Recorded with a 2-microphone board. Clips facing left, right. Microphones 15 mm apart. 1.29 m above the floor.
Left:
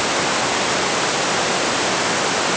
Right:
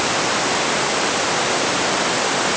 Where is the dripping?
No dripping in this recording.